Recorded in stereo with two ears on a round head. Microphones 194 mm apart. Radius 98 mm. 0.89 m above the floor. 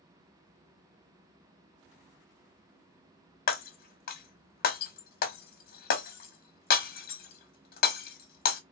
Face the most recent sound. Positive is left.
turn(degrees=45)  # may be behind; listen again after turning